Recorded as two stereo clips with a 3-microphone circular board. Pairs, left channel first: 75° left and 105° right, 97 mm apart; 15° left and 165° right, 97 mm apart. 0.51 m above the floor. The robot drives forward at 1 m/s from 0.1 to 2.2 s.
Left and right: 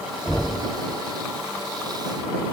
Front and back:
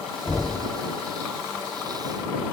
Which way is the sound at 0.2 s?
5° left.